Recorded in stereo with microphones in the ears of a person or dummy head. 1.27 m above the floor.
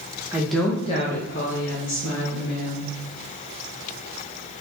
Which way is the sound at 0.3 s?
15° right (ahead or behind).